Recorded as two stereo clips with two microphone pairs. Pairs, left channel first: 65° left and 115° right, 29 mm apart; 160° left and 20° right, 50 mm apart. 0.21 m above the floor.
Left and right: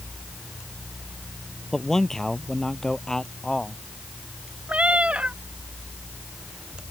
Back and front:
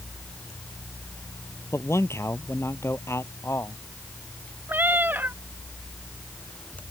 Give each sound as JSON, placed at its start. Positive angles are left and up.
{"t": 1.7, "sound": "a man speaking", "azimuth_deg": 140}
{"t": 4.7, "sound": "a cat meowing", "azimuth_deg": -70}